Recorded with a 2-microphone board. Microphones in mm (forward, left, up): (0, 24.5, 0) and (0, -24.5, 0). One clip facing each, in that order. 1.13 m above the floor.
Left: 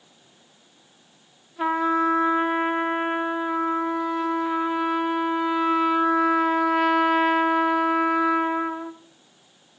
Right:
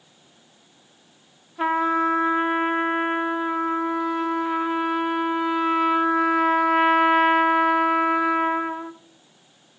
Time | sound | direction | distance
1.6 | a trumpet | 15° right (ahead or behind) | 0.8 m